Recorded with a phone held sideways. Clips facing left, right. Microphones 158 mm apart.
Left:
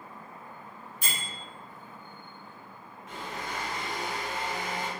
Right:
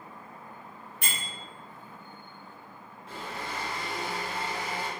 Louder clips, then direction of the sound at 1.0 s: Even; 65° right (ahead or behind).